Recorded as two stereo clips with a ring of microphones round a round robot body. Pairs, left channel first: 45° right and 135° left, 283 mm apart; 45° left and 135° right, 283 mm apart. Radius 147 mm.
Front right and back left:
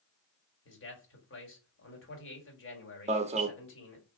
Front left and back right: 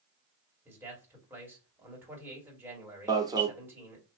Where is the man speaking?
55° right, 1.9 m.